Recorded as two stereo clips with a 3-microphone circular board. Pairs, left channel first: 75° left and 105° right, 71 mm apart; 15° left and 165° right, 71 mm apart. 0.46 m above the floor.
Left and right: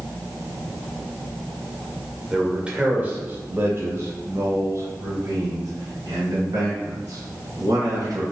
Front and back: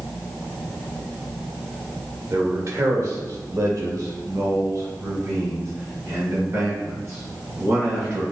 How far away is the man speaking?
About 1.7 m.